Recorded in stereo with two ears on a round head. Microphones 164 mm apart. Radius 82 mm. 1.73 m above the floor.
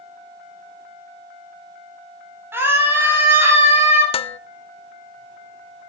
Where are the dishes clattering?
35° left (ahead or behind), 0.8 m.